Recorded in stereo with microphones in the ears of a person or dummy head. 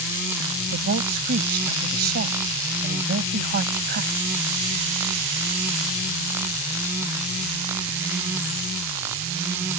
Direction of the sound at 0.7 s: 55° right (ahead or behind).